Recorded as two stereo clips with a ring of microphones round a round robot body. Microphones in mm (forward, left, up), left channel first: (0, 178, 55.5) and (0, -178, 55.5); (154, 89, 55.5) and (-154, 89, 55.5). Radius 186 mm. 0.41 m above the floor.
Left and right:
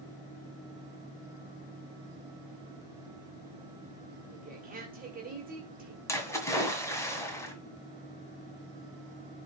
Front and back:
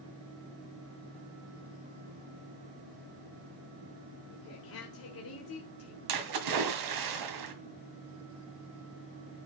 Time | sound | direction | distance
4.3 | a woman speaking | 30° right | 1.8 m
6.1 | a splash | 170° left | 1.8 m